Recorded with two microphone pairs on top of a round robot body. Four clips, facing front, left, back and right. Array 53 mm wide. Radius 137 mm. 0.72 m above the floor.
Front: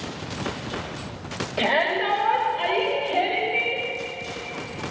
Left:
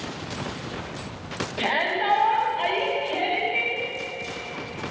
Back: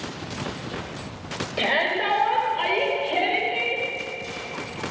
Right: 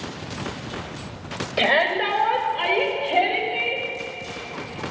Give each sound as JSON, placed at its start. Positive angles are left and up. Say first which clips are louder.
{"t": 1.6, "sound": "a shout", "louder": "right 5 dB, front 1 dB", "azimuth_deg": -110, "distance_m": 3.5}